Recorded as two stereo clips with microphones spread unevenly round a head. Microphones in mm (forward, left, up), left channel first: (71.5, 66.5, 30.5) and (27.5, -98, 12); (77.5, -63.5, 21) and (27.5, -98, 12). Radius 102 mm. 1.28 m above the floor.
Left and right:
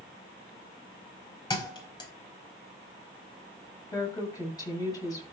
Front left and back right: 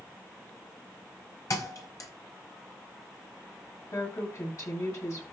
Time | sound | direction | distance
1.5 | a thud | 15° left | 4 m
3.9 | a woman speaking | 5° left | 7.5 m